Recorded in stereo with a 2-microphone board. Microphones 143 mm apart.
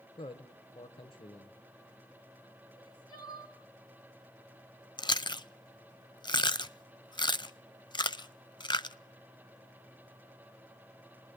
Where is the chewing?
30° left (ahead or behind), 0.5 m.